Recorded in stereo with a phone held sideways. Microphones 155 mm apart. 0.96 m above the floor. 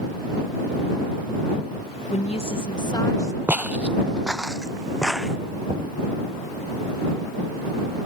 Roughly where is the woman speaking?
Left.